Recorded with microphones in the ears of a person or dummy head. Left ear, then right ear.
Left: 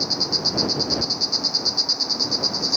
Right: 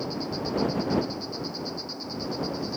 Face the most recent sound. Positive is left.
turn(degrees=70)  # may be behind; listen again after turning